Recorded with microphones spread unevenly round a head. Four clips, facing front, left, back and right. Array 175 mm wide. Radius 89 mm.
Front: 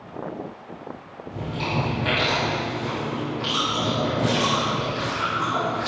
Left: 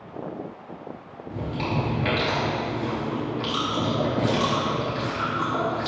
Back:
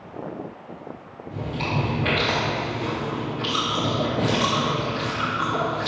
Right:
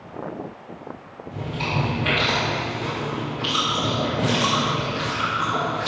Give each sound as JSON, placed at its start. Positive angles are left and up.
{"t": 1.3, "sound": "chewing", "azimuth_deg": 95, "distance_m": 4.0}